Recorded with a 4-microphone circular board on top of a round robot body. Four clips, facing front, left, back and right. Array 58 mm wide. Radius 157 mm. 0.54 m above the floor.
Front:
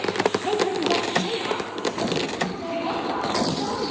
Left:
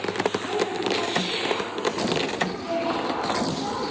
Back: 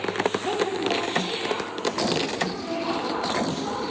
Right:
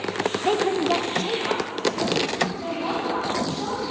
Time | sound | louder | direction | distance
0.5 | a woman speaking | right 4 dB, front 2 dB | 90° right | 1.1 m